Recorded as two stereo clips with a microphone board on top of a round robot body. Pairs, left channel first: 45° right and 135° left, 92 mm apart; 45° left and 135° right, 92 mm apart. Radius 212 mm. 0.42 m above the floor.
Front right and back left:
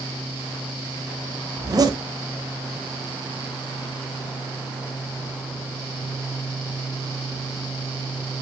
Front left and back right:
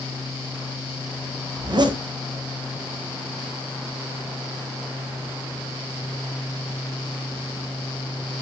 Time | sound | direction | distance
1.6 | a zipper | 175° right | 1.4 m